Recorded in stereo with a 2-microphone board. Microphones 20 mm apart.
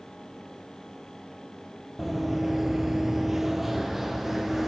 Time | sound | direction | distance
2.0 | running footsteps | 5° right (ahead or behind) | 0.9 m